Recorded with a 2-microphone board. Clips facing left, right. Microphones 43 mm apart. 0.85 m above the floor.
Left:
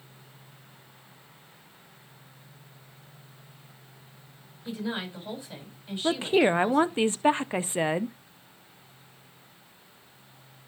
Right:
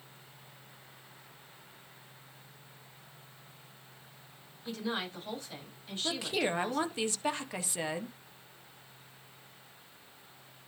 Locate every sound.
4.7 s a woman speaking: 15° left (ahead or behind), 6.5 m
6.0 s a woman speaking: 30° left (ahead or behind), 0.7 m